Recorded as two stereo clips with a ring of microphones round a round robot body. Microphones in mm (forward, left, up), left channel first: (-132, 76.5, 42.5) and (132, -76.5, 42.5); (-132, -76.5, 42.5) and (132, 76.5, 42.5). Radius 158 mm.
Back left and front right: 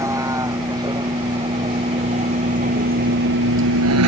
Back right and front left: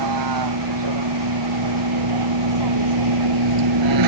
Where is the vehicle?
50° left; by 4.1 s 10° left.